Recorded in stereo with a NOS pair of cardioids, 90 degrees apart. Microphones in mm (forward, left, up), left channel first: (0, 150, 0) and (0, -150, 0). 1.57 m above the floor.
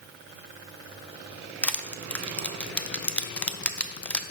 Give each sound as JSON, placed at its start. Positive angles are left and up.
{"t": 1.6, "sound": "crushing", "azimuth_deg": 5, "distance_m": 0.5}